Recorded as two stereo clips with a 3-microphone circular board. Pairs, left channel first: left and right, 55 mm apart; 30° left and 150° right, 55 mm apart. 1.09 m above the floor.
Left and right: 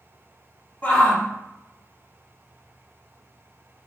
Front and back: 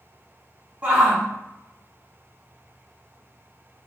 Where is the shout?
145° left, 2.0 m.